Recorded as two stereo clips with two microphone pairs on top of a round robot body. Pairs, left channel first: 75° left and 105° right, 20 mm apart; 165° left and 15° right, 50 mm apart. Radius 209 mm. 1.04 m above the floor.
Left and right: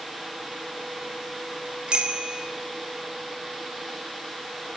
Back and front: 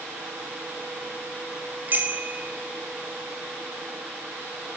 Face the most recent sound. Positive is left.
turn(degrees=-65)